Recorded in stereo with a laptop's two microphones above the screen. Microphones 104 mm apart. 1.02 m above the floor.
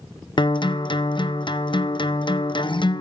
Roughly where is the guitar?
Left.